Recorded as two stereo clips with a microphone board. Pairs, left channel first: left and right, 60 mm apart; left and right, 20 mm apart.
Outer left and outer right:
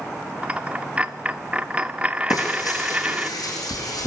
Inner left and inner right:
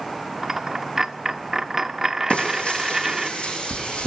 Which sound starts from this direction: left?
Frying, at 2.3 s.